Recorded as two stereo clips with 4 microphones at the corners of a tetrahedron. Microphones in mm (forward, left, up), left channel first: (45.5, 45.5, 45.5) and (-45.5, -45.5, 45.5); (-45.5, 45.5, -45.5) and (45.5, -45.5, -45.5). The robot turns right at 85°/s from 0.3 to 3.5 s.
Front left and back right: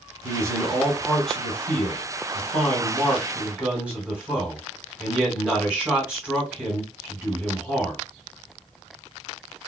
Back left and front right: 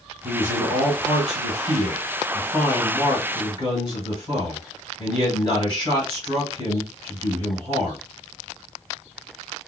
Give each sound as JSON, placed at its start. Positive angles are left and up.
{"t": 0.2, "sound": "a man speaking", "azimuth_deg": -120, "distance_m": 1.8}